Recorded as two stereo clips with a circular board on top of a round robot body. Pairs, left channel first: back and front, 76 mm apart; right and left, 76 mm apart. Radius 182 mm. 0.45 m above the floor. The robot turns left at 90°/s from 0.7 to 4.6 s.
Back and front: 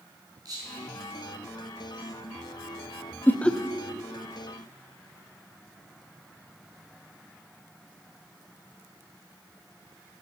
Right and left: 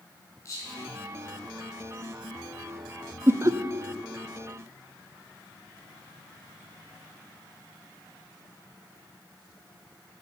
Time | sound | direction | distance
0.5 | whispering | 45° right | 5 m
3.3 | laughter | 130° left | 0.8 m